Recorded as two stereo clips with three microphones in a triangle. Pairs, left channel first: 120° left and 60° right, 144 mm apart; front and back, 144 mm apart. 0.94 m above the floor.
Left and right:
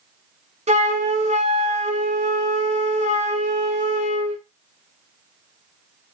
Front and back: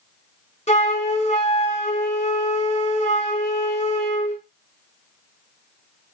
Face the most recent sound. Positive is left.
turn(degrees=-30)